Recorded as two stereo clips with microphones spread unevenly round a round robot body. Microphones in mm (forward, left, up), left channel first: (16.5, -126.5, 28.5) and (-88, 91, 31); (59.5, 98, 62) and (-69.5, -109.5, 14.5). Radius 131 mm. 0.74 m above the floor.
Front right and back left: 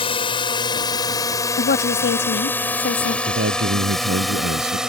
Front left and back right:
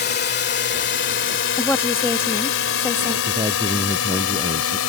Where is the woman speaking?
30° right.